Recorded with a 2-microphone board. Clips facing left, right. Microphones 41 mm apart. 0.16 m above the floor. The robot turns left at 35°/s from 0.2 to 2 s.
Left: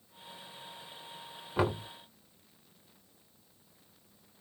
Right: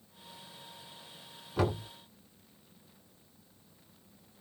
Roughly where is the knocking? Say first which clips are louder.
Left 1 dB; left.